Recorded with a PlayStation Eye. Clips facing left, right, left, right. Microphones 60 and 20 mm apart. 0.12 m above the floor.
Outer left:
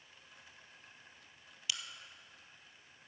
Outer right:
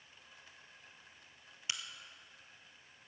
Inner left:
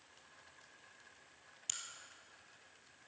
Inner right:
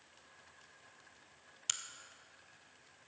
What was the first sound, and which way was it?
A crack, 30° right (ahead or behind).